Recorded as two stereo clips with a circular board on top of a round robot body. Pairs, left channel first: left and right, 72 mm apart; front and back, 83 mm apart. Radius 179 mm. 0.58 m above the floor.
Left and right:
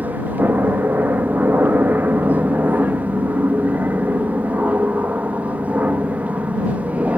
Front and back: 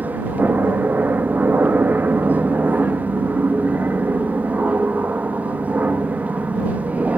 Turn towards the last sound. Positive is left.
turn(degrees=-130)